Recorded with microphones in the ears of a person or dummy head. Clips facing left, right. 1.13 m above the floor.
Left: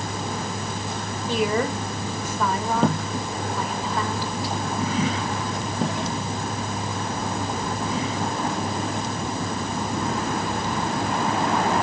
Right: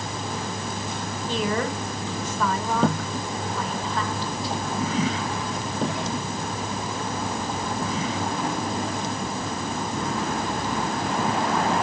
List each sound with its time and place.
1.3 s a woman speaking: 5° left (ahead or behind), 3.5 m